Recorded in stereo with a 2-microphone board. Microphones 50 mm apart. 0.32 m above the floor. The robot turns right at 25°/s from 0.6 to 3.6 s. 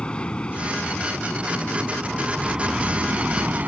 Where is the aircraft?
20° left (ahead or behind); by 3.7 s 30° right (ahead or behind).